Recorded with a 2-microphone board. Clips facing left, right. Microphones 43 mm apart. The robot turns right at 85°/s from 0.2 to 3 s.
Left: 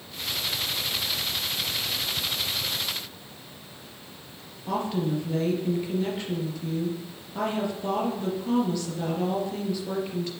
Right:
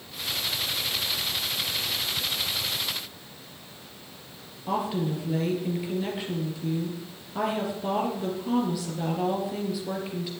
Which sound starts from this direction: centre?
A woman speaking, at 4.7 s.